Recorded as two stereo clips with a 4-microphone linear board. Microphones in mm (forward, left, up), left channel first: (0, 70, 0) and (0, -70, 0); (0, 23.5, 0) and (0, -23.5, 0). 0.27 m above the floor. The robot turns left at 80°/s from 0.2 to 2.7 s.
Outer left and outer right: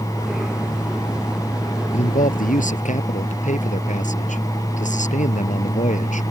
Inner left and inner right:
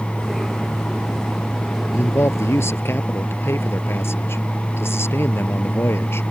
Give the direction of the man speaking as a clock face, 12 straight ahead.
8 o'clock.